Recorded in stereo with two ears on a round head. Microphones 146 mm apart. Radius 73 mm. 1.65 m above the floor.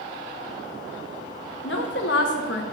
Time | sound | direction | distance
1.6 | a woman speaking | 80° left | 1.5 m